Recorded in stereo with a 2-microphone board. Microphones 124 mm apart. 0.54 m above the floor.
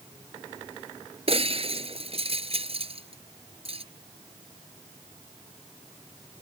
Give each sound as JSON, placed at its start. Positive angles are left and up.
{"t": 1.3, "sound": "breaking glass", "side_deg": -50}